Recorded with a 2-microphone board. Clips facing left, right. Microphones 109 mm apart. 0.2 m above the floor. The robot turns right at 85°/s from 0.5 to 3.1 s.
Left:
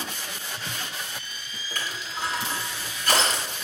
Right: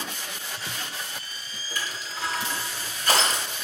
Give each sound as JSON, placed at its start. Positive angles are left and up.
{"t": 1.8, "sound": "crushing", "side_deg": 55, "distance_m": 4.0}